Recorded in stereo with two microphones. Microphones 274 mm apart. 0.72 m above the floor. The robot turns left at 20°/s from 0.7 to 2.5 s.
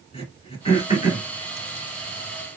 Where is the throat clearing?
20° left (ahead or behind), 1.7 m; by 1.3 s 30° left (ahead or behind), 1.7 m.